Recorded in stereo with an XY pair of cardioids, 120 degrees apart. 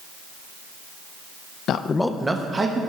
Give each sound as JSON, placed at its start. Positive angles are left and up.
{"t": 1.7, "sound": "a man speaking", "azimuth_deg": 60, "distance_m": 0.6}